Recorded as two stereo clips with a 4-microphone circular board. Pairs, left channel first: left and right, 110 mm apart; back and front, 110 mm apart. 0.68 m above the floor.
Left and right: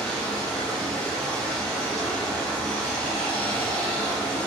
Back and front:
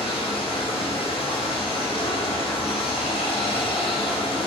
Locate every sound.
0.0 s running water: 170° left, 0.8 m